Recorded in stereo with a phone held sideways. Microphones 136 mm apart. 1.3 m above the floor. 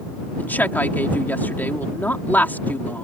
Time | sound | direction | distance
0.4 | a woman speaking | 15° left (ahead or behind) | ?